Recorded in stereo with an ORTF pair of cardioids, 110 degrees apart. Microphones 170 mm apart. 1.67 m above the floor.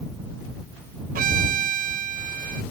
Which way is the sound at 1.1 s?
55° right.